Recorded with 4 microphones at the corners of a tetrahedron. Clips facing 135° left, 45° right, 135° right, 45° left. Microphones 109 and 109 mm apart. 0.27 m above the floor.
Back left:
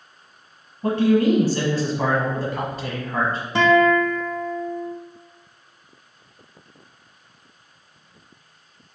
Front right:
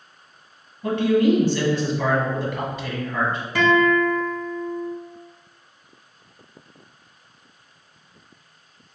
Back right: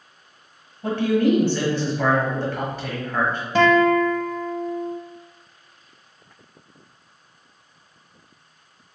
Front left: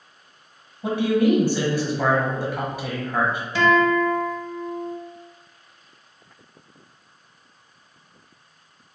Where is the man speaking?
120° left, 1.4 m.